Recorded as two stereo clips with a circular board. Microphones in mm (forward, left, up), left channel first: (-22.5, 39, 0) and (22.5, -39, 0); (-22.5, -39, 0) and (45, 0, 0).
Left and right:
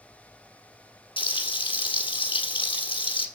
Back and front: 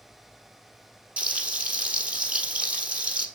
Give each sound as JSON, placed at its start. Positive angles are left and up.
{"t": 1.2, "sound": "frying", "azimuth_deg": 100, "distance_m": 1.9}